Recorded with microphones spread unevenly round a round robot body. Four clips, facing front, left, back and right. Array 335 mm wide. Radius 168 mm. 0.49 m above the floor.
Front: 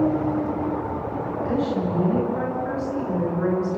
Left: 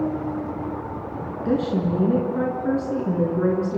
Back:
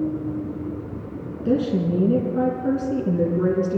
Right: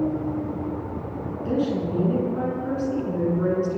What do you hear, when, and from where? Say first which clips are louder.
1.4 s a woman speaking: left 2 dB, back 5 dB; 150° left, 7.5 m